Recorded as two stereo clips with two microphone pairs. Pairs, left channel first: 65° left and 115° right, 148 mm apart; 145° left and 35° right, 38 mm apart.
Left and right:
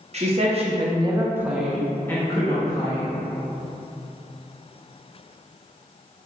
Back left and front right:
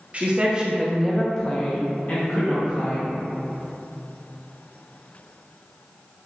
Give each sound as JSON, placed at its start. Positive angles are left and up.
{"t": 0.1, "sound": "a woman speaking", "azimuth_deg": -85, "distance_m": 0.8}